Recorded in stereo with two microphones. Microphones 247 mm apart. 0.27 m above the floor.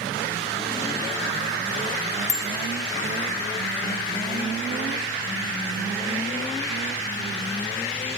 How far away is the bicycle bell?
About 2 m.